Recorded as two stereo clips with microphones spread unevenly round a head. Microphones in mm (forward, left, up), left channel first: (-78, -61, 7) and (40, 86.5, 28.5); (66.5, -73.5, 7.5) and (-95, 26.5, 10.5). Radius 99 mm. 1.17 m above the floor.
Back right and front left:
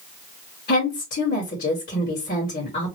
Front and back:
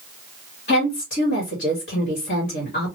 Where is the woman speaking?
75° right, 2.5 m.